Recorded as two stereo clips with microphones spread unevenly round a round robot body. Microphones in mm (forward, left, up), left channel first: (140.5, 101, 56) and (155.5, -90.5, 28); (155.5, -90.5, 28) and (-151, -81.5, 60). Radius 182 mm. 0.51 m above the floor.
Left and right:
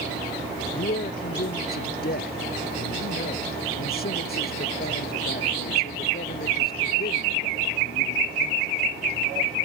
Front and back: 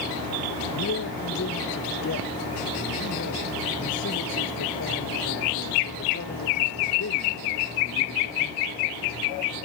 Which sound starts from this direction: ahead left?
A man speaking, at 0.7 s.